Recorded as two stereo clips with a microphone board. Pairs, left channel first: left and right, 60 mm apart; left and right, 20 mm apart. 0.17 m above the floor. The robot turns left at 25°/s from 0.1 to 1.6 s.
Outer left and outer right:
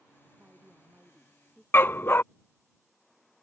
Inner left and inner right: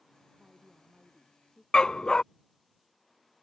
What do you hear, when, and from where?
0.4 s a woman speaking: 150° right; by 1.6 s straight behind
1.7 s a dog barking: 40° left (ahead or behind)